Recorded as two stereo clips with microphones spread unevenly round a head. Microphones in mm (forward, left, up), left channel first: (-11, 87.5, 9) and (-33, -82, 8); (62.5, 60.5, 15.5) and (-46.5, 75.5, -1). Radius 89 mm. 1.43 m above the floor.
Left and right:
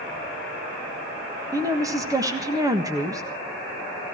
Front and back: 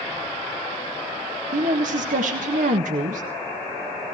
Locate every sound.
1.5 s a woman speaking: 170° right, 1.5 m